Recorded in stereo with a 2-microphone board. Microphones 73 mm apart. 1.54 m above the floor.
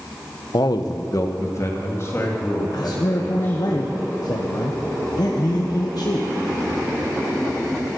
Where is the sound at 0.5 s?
70° left (ahead or behind), 0.8 m; by 3.7 s 30° left (ahead or behind), 4 m.